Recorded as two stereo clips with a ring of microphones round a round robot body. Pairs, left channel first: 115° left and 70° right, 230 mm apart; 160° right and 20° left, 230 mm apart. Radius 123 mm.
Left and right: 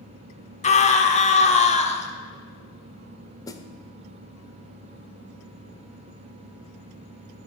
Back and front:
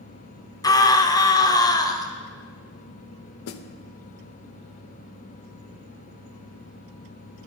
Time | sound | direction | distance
0.6 | a scream | 140° left | 0.9 m
3.5 | a snare drum | 175° right | 0.5 m